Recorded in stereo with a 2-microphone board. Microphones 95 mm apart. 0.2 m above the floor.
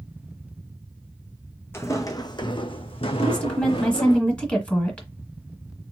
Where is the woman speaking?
15° left (ahead or behind), 1.9 m.